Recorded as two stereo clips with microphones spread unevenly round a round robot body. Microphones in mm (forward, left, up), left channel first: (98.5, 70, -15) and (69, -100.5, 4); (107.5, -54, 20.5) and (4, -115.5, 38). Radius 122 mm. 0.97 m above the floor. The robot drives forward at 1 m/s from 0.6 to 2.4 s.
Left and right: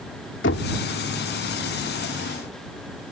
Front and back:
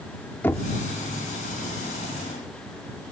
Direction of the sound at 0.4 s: 110° left.